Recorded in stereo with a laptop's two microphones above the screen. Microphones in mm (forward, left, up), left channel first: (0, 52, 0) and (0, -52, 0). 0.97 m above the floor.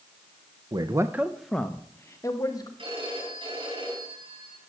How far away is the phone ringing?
About 7.5 m.